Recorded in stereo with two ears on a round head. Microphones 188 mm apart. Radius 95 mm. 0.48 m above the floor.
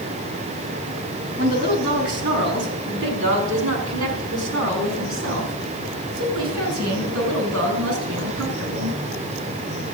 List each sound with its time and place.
1.4 s a woman speaking: 50° right (ahead or behind), 5 m; by 9.0 s 75° right (ahead or behind), 7.5 m